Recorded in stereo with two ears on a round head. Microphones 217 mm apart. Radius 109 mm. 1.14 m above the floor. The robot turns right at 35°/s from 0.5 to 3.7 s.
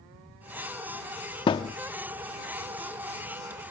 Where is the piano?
I don't hear a piano.